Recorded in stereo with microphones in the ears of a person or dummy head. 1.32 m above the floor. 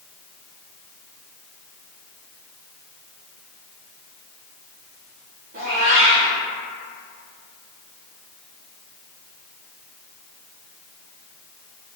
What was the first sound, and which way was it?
A cat meowing, 50° right (ahead or behind).